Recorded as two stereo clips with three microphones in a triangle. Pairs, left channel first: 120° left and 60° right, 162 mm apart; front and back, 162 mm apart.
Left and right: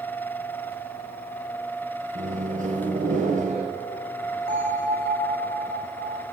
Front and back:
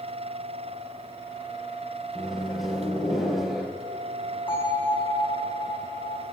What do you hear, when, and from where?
2.1 s a microwave: 90° right, 1.8 m
4.5 s a bell: 65° right, 5 m